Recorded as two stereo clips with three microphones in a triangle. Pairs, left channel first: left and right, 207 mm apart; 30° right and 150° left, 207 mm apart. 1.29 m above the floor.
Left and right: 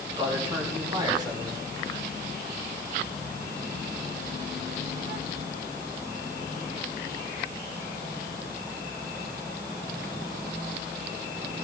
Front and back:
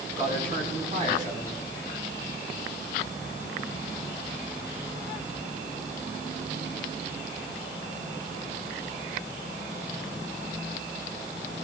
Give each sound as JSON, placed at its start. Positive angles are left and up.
{"t": 0.2, "sound": "a man speaking", "azimuth_deg": -160, "distance_m": 6.0}